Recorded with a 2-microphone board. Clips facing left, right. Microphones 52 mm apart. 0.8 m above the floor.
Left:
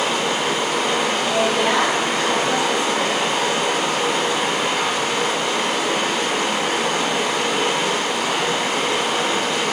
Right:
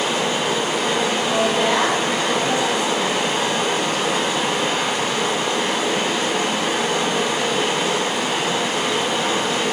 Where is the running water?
60° left (ahead or behind), 1.2 m.